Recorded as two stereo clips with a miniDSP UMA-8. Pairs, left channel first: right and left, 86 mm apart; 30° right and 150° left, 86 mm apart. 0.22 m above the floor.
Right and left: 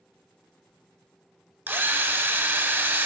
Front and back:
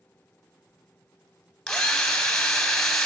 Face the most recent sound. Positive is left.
turn(degrees=50)